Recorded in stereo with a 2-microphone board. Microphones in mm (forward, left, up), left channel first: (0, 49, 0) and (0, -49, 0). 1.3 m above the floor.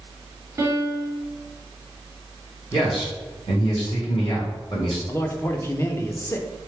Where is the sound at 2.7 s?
55° left (ahead or behind), 1.4 m.